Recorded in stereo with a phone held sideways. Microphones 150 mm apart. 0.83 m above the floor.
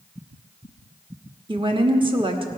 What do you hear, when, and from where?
1.5 s a woman speaking: 35° right (ahead or behind), 1.2 m